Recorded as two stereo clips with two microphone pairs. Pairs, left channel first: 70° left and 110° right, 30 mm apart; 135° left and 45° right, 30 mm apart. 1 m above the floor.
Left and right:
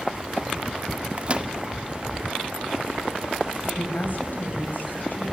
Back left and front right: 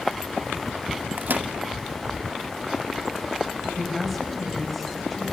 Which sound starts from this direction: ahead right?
A microwave, at 1.2 s.